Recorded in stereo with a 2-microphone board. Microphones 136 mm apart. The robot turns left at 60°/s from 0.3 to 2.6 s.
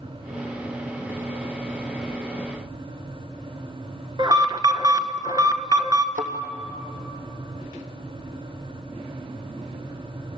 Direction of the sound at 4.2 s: 35° right (ahead or behind).